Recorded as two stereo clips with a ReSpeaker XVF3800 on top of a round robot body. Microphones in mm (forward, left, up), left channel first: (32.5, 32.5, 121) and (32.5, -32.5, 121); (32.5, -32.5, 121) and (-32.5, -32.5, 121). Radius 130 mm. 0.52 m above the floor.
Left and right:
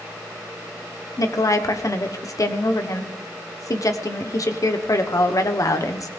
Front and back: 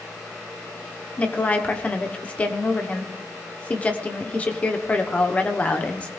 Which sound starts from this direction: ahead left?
A woman speaking, at 1.2 s.